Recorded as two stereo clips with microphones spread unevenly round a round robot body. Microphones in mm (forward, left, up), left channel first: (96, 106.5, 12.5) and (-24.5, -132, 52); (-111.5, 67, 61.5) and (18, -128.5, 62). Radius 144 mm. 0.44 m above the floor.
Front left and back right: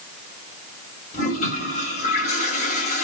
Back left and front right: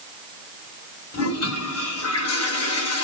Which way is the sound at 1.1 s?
125° left.